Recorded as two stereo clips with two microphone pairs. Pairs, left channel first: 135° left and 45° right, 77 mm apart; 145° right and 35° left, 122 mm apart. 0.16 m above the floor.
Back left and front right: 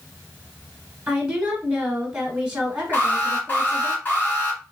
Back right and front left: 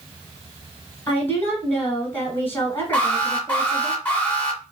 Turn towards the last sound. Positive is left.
turn(degrees=155)